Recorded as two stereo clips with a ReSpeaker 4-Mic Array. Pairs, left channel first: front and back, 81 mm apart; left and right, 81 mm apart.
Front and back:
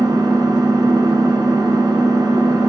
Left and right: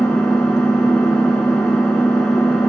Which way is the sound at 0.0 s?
170° left.